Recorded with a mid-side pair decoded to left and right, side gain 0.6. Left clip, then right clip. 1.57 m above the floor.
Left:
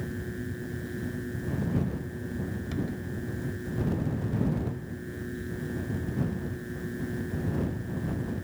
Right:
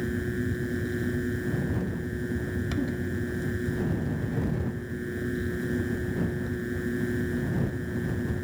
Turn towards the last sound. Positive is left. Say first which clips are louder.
# right 6 dB
turn(degrees=-35)